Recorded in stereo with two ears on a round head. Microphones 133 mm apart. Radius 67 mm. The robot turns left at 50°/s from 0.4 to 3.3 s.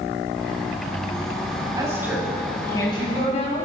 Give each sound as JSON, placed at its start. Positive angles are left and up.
{"t": 1.8, "sound": "a woman speaking", "azimuth_deg": -155, "distance_m": 6.0}